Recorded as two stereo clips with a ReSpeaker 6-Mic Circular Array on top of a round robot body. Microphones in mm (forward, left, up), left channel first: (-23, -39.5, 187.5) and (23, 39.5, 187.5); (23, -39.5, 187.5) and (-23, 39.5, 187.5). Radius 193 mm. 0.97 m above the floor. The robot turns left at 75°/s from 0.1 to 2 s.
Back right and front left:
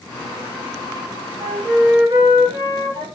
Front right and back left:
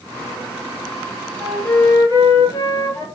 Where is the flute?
45° left, 1.0 m; by 3.0 s straight ahead, 1.0 m.